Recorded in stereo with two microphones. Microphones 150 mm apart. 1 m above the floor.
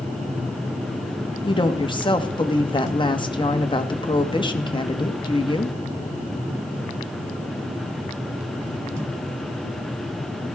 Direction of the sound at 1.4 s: 30° left (ahead or behind).